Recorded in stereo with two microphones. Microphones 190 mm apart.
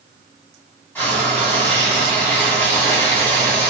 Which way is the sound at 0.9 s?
10° left (ahead or behind).